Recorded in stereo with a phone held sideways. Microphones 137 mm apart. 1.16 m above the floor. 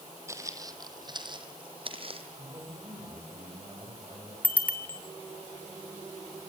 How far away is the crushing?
I don't hear crushing.